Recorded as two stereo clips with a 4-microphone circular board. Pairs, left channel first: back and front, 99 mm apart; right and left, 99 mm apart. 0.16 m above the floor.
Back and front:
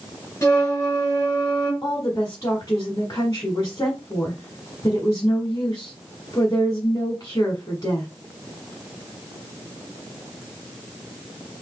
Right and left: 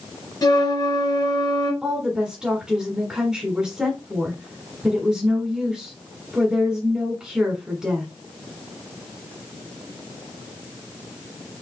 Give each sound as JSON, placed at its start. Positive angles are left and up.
{"t": 0.4, "sound": "a flute", "azimuth_deg": -125, "distance_m": 2.5}
{"t": 1.8, "sound": "a woman speaking", "azimuth_deg": 165, "distance_m": 1.5}